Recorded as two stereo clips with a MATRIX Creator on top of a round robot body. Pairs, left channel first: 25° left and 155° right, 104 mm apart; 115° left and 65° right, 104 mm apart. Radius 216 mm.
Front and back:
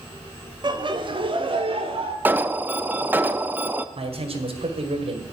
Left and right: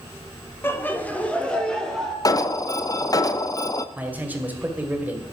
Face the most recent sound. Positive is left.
turn(degrees=-140)